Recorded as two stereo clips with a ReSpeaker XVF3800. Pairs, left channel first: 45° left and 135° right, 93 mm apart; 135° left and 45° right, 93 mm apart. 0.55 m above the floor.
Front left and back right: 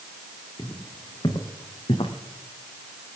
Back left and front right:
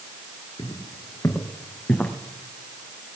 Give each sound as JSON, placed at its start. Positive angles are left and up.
{"t": 0.6, "sound": "footsteps", "azimuth_deg": 85, "distance_m": 3.0}